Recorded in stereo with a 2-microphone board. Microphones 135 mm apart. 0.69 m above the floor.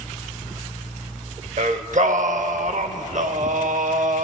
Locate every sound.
1.6 s singing: 65° right (ahead or behind), 0.7 m